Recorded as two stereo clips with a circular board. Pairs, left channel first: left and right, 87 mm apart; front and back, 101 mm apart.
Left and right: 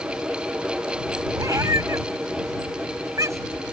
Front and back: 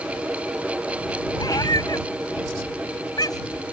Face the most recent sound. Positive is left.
turn(degrees=-40)